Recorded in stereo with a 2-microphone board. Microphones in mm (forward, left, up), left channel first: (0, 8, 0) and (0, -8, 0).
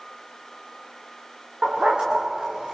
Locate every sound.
1.6 s a dog barking: 70° right (ahead or behind), 5 m; by 2.8 s 75° right (ahead or behind), 4.5 m